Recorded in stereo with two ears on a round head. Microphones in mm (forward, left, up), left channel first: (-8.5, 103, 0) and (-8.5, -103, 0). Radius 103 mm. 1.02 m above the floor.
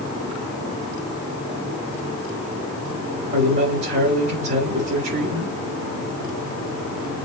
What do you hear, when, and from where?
3.3 s a man speaking: 50° right (ahead or behind), 4 m